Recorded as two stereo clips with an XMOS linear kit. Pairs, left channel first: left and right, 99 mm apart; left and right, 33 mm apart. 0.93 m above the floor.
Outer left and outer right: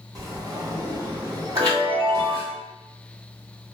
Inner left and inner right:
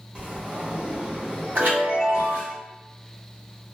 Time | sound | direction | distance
0.1 | a sliding door | 35° right (ahead or behind) | 0.7 m
1.6 | a chime | 65° right (ahead or behind) | 1.7 m